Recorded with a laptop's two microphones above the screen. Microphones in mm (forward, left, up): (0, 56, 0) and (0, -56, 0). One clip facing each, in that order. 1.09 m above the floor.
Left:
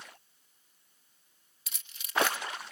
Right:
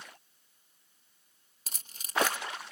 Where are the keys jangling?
40° right (ahead or behind).